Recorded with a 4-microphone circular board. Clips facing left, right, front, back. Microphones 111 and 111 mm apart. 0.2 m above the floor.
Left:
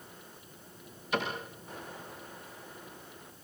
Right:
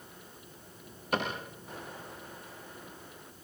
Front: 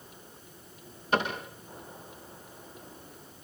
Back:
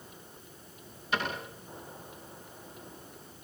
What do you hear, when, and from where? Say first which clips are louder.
1.1 s a cupboard door: right 1 dB, front 4 dB; 50° right, 9.5 m